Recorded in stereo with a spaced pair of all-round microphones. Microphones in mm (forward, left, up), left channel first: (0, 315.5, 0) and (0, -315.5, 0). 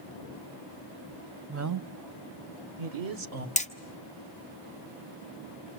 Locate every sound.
1.5 s a woman speaking: 20° right (ahead or behind), 0.6 m; by 3.5 s 60° right (ahead or behind), 1.4 m
3.6 s hammering: 10° left (ahead or behind), 1.3 m